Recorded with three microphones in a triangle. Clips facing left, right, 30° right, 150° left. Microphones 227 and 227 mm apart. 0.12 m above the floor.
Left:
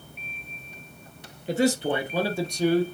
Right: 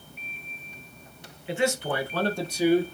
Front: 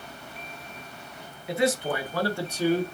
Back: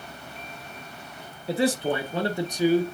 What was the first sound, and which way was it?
A man speaking, 110° left.